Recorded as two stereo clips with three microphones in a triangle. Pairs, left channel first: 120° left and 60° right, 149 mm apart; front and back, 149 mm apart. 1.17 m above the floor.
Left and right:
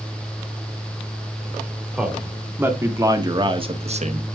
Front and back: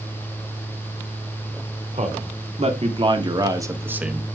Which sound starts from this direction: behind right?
A man speaking, at 1.9 s.